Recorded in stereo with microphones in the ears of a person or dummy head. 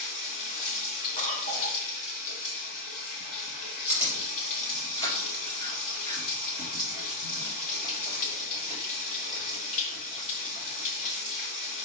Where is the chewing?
35° left (ahead or behind), 4 m.